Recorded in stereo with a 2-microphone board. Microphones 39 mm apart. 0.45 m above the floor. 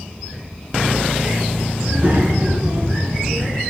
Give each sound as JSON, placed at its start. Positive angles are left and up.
{"t": 1.8, "sound": "a child speaking", "side_deg": -70, "distance_m": 2.5}